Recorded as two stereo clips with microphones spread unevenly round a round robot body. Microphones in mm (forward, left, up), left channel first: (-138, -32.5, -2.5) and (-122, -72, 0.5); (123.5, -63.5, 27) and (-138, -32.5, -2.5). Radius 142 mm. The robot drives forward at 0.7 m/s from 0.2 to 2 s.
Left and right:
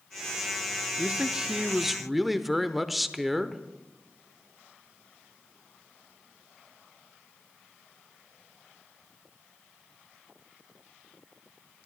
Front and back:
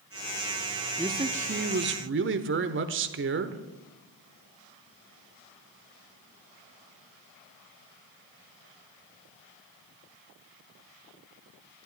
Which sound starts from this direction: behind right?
A man speaking, at 1.0 s.